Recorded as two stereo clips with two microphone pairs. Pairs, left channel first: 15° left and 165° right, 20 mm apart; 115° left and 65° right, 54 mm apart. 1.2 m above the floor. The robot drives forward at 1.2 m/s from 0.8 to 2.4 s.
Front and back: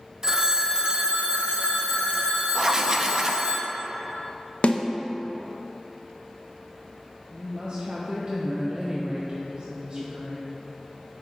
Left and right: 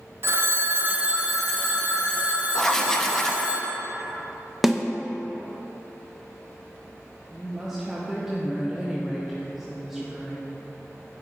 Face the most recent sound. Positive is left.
turn(degrees=-140)